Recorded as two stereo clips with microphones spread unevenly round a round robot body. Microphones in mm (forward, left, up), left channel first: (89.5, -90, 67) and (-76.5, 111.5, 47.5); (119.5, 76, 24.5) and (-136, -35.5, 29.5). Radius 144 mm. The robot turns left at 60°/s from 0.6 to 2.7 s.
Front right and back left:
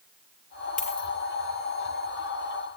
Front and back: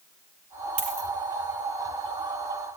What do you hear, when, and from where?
0.8 s a dropped coin: 110° right, 4.5 m; by 1.1 s 130° right, 4.5 m